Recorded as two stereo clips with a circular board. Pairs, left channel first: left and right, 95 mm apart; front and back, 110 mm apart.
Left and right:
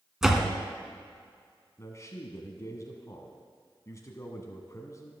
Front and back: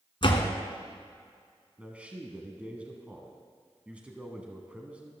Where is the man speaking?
110° left, 1.2 m.